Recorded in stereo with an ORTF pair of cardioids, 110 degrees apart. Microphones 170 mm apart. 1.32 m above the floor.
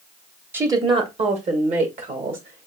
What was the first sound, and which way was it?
A woman speaking, 10° right.